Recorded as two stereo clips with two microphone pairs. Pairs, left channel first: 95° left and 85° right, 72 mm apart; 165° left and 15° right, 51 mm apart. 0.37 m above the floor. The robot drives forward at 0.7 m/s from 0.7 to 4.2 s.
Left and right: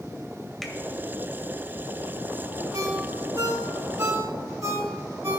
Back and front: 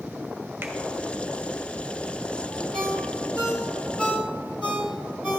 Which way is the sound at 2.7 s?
120° right.